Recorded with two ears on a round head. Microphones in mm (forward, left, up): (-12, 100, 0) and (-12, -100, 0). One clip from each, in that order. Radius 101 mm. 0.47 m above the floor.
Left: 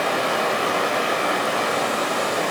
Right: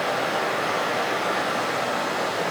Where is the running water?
45° left (ahead or behind), 5.5 m.